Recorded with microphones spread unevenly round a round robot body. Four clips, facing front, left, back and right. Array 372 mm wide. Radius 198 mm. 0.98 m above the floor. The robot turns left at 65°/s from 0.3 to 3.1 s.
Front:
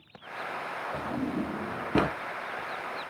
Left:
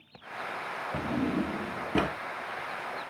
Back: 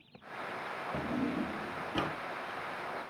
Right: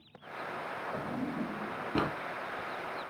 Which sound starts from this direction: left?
A drawer, at 0.9 s.